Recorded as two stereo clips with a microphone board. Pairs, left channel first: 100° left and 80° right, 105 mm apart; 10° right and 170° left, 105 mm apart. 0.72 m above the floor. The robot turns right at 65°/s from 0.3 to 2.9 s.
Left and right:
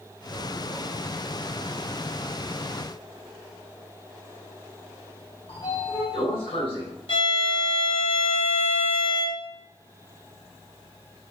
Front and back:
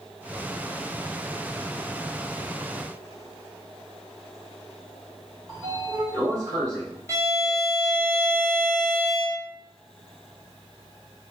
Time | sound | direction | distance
5.5 | a sliding door | 115° left | 1.3 m
7.1 | a violin | 105° left | 1.6 m